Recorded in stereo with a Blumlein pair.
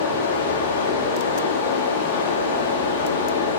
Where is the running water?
60° left, 2.5 m.